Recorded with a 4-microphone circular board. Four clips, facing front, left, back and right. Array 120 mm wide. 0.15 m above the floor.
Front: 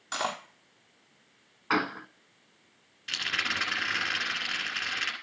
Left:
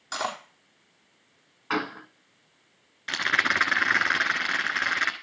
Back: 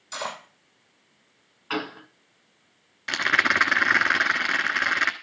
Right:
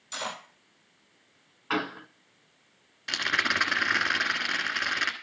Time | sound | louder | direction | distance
0.1 | cutlery clinking | left 5 dB, front 1 dB | 55° left | 4.5 m
1.7 | a gunshot | left 1 dB, front 2 dB | 15° left | 0.8 m
3.1 | a rattle | left 3 dB, back 11 dB | 165° left | 1.2 m